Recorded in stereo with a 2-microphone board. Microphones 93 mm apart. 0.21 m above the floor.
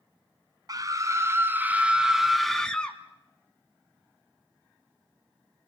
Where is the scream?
40° right (ahead or behind), 2 m; by 3.0 s 15° left (ahead or behind), 2.5 m.